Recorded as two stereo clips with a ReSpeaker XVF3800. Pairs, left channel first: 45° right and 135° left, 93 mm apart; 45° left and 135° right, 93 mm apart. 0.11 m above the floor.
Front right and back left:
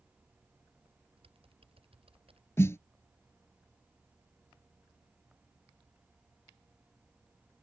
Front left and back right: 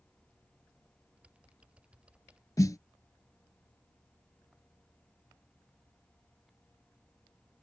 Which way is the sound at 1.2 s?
145° left.